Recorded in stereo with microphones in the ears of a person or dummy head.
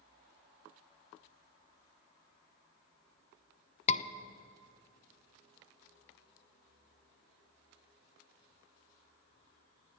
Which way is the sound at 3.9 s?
35° left (ahead or behind).